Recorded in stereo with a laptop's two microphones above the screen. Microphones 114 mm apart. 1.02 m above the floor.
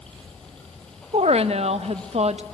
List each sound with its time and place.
0.0 s running water: 10° left (ahead or behind), 2.5 m
1.1 s a woman speaking: 70° right (ahead or behind), 0.8 m